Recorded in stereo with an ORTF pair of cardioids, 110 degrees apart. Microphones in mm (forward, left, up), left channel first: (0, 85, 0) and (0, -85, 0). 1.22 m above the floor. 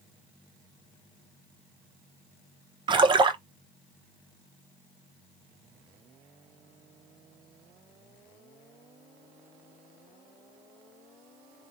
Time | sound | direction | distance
2.9 | a splash | 30° right | 0.7 m